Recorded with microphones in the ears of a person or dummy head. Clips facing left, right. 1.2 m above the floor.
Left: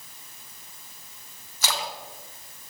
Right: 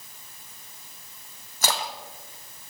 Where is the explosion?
I don't hear an explosion.